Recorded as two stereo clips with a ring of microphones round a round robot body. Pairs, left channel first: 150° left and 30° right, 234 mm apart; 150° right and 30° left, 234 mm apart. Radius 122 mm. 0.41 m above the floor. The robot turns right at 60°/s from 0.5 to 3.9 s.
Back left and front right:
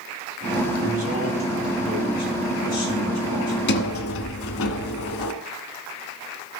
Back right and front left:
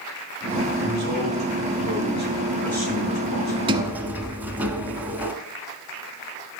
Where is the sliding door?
100° left, 1.0 m; by 5.3 s 115° left, 1.0 m.